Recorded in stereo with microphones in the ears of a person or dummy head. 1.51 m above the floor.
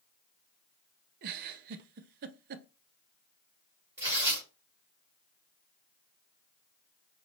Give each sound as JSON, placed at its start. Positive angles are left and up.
{"t": 1.2, "sound": "a giggle", "side_deg": -55, "distance_m": 0.6}
{"t": 4.0, "sound": "tearing paper", "side_deg": -15, "distance_m": 2.5}